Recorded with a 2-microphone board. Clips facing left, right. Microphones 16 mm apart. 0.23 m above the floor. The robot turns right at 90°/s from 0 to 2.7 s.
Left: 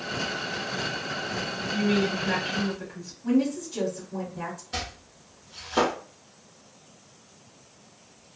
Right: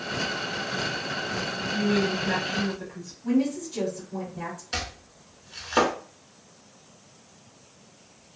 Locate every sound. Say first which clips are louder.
1.7 s a woman speaking: even; 90° left, 1.0 m; by 3.1 s straight behind, 1.0 m
3.2 s a woman speaking: even; 10° left (ahead or behind), 1.3 m
4.7 s chopping: right 2 dB; 70° right (ahead or behind), 1.2 m